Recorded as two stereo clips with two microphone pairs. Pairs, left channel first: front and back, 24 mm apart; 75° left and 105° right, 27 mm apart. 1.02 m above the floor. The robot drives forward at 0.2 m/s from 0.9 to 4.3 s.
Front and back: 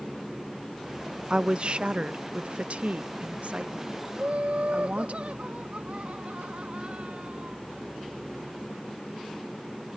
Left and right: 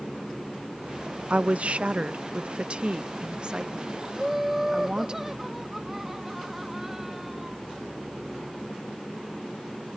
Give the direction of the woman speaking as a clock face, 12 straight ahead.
4 o'clock.